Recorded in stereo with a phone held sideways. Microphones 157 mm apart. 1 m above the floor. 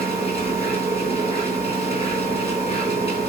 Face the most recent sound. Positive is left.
turn(degrees=-75)  # may be behind; listen again after turning